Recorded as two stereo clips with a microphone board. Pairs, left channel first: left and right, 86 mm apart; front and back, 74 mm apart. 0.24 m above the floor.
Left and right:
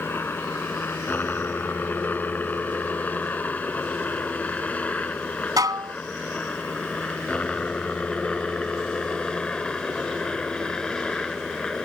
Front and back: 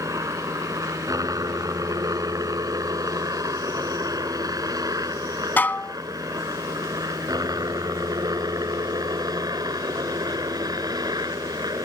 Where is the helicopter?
155° left; by 11.9 s 175° left.